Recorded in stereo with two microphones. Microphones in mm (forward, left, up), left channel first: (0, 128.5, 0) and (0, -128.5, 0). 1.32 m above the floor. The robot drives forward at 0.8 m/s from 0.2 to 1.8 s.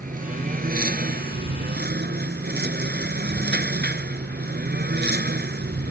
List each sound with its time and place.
0.0 s a lawn mower: 30° right (ahead or behind); by 5.9 s 35° right (ahead or behind)